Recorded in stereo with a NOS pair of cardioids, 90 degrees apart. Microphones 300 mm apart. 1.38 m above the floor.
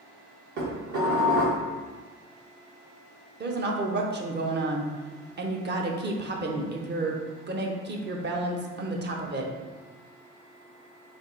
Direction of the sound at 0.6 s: 55° right.